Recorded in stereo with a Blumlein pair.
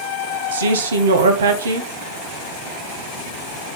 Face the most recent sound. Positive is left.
turn(degrees=-65)